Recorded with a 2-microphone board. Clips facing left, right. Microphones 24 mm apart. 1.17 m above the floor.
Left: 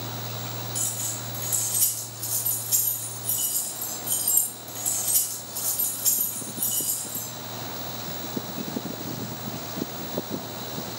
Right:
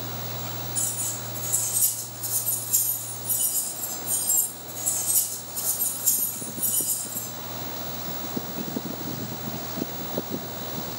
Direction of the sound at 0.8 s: 80° left.